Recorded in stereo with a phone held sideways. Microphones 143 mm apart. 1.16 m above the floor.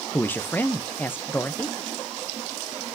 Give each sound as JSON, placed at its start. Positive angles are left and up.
{"t": 0.1, "sound": "a man speaking", "side_deg": 15, "distance_m": 0.6}